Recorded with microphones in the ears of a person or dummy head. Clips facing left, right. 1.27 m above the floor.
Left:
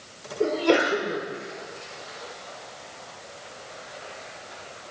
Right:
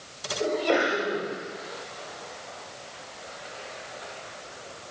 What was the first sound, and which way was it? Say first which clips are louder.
A sneeze: left 3 dB; 70° left (ahead or behind).